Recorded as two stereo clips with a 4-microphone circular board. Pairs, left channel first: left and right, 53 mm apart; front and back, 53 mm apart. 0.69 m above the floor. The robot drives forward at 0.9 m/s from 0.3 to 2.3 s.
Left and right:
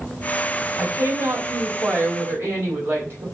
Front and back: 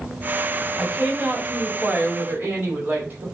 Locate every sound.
0.8 s a woman speaking: 105° right, 3 m; by 3.2 s 130° right, 3.5 m